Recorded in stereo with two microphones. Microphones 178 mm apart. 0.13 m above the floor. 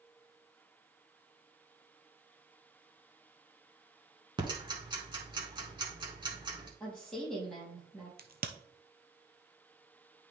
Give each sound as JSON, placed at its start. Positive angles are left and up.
{"t": 4.4, "sound": "ticking", "side_deg": -25, "distance_m": 1.7}
{"t": 6.8, "sound": "a woman speaking", "side_deg": 5, "distance_m": 4.5}
{"t": 8.2, "sound": "a crack", "side_deg": -60, "distance_m": 1.0}